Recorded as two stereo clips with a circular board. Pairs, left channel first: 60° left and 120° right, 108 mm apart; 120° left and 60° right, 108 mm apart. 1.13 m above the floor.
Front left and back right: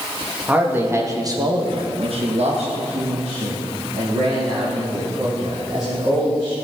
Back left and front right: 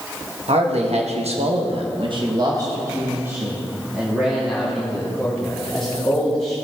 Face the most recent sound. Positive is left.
turn(degrees=-155)